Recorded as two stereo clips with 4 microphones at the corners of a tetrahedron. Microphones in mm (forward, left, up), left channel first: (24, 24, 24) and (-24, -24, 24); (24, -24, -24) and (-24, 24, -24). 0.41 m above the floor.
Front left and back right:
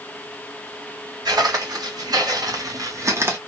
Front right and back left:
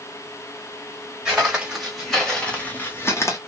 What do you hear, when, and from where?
1.2 s footsteps: 150° right, 1.9 m; by 3.4 s 85° right, 1.2 m